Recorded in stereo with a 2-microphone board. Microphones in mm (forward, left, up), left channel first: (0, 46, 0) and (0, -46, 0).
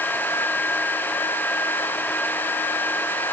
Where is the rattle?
I don't hear a rattle.